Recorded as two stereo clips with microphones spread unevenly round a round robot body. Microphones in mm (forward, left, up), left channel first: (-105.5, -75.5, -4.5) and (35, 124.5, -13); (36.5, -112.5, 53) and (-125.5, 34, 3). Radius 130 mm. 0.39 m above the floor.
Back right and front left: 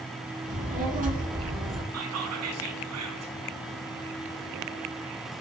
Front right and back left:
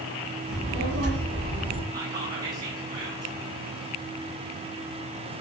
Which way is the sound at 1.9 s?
70° left.